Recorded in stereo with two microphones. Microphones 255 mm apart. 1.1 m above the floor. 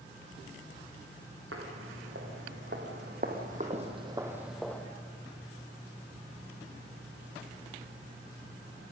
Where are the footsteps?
60° right (ahead or behind), 5 m; by 4.8 s 10° left (ahead or behind), 2.5 m.